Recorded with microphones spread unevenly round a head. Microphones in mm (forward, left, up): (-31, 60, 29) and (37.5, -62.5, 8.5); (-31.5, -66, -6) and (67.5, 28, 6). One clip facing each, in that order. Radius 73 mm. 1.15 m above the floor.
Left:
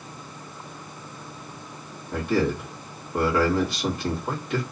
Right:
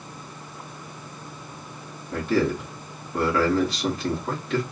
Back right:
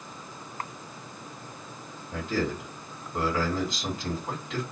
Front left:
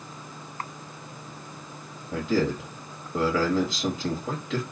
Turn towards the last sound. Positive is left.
turn(degrees=35)